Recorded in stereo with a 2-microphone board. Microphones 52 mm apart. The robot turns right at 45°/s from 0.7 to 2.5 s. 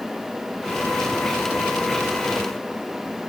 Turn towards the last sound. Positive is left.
No sound to turn to.